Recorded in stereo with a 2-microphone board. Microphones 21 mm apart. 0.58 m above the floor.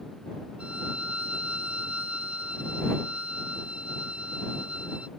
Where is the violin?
90° right.